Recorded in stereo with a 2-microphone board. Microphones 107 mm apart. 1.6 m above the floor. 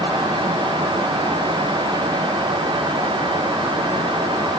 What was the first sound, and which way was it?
Only background noise.